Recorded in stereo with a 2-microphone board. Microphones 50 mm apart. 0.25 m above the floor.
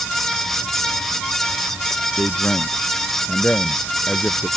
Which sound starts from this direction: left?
A man speaking, at 2.2 s.